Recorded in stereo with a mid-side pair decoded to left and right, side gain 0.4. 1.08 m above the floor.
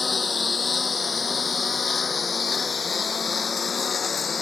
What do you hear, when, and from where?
0.0 s a lawn mower: 35° left; by 4.4 s 45° left